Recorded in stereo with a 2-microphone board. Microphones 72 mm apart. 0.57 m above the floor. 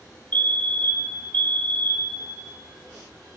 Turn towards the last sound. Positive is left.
turn(degrees=20)  # may be behind; listen again after turning